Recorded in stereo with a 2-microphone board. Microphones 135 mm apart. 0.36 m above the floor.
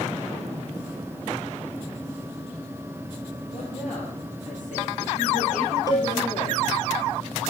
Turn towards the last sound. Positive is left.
turn(degrees=25)  # may be behind; listen again after turning